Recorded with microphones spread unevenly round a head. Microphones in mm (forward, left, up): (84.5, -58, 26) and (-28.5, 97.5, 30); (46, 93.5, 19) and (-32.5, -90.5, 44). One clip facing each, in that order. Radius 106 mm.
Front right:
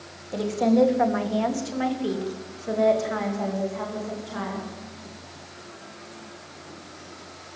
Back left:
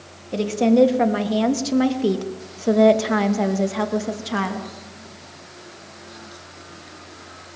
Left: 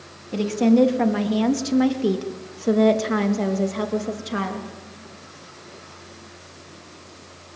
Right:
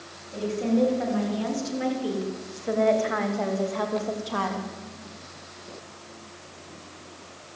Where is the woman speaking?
70° left, 3.5 m; by 4.7 s 140° left, 3 m.